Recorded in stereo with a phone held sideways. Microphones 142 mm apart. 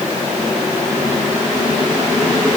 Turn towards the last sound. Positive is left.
No sound to turn to.